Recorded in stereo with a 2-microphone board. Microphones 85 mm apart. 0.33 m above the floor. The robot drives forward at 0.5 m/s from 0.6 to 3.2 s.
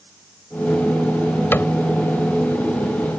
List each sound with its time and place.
1.5 s a cupboard door: 25° left (ahead or behind); by 1.7 s 30° left (ahead or behind)